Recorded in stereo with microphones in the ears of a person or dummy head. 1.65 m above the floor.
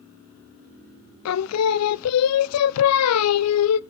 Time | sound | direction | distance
1.2 | singing | 85° left | 0.5 m